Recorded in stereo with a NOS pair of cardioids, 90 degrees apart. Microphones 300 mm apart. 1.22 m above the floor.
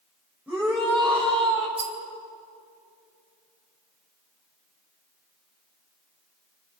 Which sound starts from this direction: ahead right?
A rattle, at 1.8 s.